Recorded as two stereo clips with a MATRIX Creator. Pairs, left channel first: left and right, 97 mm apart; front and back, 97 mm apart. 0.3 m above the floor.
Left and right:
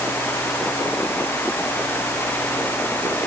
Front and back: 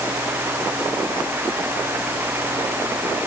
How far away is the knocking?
I don't hear knocking.